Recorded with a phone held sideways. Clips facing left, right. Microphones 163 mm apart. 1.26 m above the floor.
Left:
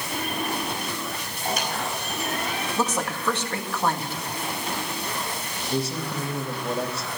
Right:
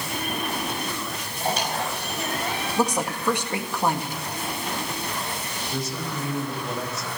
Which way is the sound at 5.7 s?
30° left (ahead or behind).